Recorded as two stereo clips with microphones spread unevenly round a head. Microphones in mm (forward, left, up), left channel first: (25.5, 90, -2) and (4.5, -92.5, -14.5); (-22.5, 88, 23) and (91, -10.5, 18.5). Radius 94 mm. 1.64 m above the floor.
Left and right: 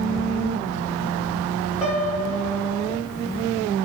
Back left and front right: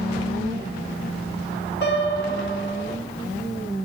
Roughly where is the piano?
Behind.